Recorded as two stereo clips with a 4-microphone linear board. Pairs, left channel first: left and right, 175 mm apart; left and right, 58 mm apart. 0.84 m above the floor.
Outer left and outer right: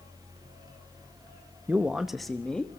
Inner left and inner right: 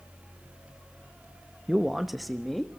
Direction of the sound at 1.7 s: 10° right (ahead or behind).